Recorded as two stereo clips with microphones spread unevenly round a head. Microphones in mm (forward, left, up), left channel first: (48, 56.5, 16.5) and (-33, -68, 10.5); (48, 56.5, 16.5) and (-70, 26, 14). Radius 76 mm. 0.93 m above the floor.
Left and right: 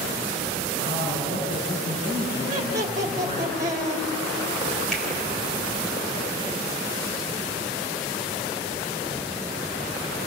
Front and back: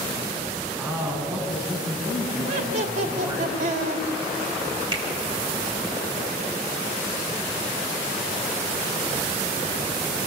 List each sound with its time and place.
0.8 s a man speaking: 115° left, 9 m
2.5 s laughter: 170° left, 2 m
4.9 s a finger snap: 145° left, 3.5 m